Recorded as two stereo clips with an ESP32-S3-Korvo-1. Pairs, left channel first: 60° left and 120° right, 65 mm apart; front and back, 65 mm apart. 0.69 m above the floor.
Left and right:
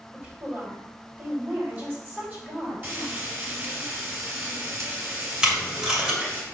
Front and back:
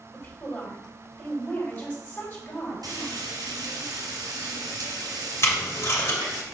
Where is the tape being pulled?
45° right, 2.0 m.